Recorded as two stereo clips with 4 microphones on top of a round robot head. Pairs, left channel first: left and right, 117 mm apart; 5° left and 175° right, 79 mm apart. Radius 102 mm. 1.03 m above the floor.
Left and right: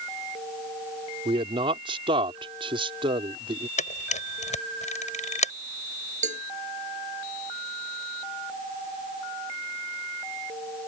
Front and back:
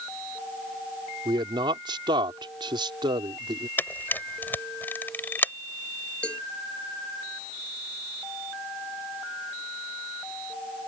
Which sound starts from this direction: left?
A camera shutter, at 3.8 s.